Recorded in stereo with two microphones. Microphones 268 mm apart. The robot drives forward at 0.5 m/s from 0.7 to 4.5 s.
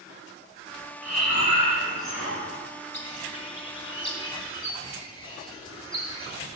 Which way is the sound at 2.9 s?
25° left (ahead or behind).